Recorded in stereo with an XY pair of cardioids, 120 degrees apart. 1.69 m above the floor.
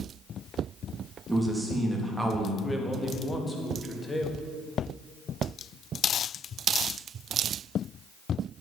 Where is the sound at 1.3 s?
10° right, 3.5 m.